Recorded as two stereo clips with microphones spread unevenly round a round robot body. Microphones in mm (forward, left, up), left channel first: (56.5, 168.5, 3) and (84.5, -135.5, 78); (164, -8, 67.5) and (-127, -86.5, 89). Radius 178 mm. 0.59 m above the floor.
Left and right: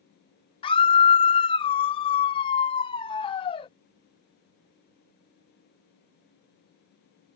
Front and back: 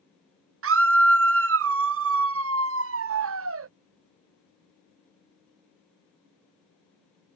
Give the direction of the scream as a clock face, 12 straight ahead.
7 o'clock.